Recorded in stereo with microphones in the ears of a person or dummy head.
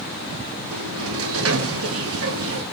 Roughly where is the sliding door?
Right.